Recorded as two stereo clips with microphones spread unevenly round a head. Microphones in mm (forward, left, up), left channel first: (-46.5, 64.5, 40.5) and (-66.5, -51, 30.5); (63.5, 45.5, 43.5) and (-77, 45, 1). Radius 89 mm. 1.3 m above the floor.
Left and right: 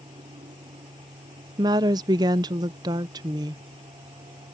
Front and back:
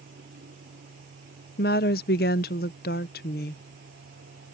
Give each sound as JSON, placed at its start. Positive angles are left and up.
{"t": 0.0, "sound": "a fan", "azimuth_deg": -145}
{"t": 1.6, "sound": "a woman speaking", "azimuth_deg": -40}